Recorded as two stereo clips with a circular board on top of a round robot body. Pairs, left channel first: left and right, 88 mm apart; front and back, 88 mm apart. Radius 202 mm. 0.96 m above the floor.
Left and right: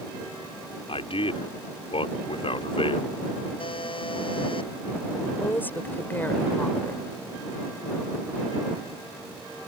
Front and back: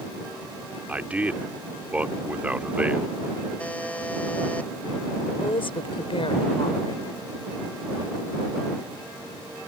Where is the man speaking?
105° left.